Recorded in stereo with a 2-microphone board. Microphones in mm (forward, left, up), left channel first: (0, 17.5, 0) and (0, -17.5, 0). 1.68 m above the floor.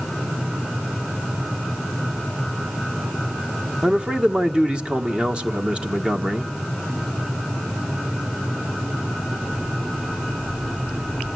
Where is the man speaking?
25° right (ahead or behind), 1.7 m.